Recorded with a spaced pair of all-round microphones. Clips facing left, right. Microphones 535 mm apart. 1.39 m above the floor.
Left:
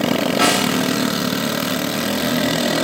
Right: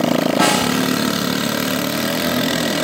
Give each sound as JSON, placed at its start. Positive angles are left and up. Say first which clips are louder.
{"t": 0.4, "sound": "a snare drum", "louder": "right 1 dB", "side_deg": -65, "distance_m": 6.5}